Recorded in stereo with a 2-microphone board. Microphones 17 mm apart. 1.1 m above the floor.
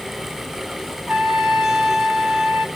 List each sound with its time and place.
1.1 s a trumpet: 60° right (ahead or behind), 1.3 m